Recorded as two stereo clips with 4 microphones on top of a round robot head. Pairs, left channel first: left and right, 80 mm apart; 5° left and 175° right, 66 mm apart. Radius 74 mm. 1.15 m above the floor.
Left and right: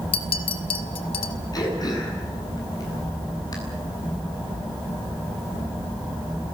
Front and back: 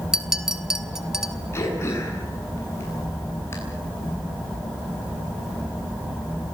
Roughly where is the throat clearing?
Ahead left.